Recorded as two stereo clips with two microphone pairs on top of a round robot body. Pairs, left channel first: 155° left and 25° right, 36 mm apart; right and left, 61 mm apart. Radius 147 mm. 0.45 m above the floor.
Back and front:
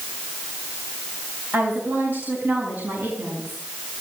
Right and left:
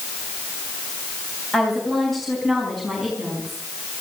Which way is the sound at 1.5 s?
5° right.